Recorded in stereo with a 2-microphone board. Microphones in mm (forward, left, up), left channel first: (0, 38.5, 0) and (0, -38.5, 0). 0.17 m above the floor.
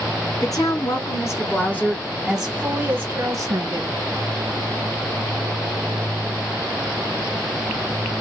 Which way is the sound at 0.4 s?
55° left (ahead or behind).